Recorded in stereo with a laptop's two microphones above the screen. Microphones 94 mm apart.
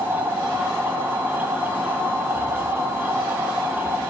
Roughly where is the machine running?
Centre.